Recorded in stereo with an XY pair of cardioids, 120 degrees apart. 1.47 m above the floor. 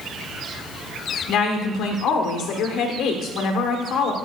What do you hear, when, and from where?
1.3 s a woman speaking: 70° left, 1.3 m